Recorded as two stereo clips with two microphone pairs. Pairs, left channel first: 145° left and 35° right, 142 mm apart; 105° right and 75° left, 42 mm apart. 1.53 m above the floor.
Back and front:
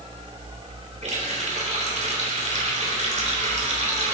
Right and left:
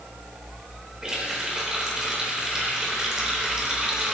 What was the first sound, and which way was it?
A running tap, straight ahead.